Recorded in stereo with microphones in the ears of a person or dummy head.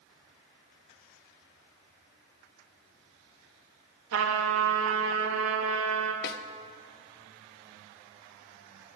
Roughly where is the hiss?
No hiss in this recording.